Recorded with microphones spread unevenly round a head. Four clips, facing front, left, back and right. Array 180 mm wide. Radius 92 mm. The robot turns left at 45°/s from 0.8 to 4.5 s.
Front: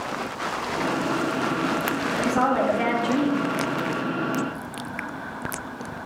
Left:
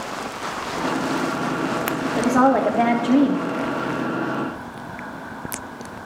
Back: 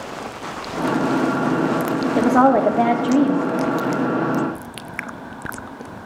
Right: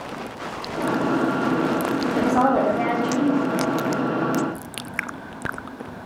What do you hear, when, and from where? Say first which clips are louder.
2.2 s a woman speaking: left 2 dB, back 8 dB; 175° right, 1.3 m; by 3.4 s 130° left, 1.3 m